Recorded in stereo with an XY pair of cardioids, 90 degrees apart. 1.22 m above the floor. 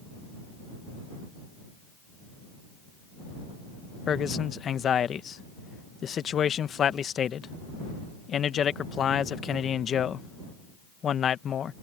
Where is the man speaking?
60° left.